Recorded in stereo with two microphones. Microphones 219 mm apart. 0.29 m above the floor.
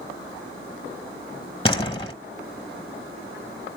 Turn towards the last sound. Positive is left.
turn(degrees=25)  # may be behind; listen again after turning